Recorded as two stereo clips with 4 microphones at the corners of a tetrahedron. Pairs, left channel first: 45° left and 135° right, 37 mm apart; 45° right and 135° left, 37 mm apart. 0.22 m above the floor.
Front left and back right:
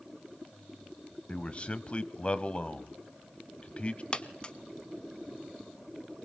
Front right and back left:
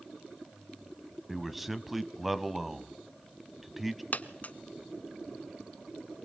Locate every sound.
1.3 s a man speaking: 50° left, 1.1 m
4.1 s a dropped coin: 15° right, 1.0 m